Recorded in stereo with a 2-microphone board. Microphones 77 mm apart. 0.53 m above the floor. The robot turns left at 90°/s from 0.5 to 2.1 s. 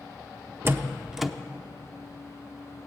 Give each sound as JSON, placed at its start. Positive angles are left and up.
{"t": 0.7, "sound": "a door slam", "side_deg": -30, "distance_m": 0.6}